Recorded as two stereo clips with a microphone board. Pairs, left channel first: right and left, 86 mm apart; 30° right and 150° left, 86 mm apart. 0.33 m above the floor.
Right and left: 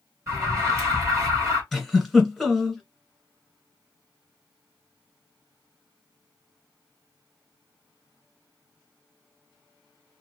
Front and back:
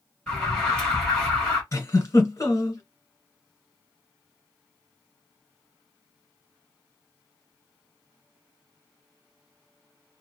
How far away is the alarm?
About 3 m.